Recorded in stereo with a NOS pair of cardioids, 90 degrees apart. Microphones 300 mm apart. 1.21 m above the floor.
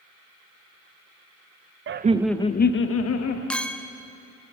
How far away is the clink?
About 0.7 m.